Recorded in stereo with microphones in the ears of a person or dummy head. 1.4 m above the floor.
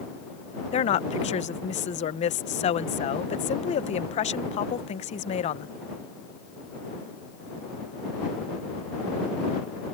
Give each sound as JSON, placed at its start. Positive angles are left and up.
{"t": 0.7, "sound": "a woman speaking", "side_deg": 35}